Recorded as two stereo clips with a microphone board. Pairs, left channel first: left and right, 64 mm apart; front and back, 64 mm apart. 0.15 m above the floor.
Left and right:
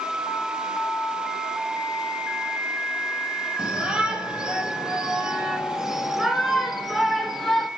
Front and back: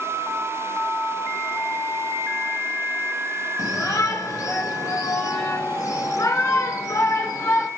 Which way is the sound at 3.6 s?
15° right.